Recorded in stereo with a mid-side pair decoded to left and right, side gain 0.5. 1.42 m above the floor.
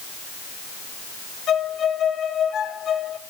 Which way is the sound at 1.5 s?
55° left.